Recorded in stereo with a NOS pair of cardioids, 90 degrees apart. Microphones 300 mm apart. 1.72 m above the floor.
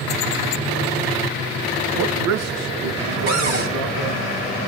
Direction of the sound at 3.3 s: 35° right.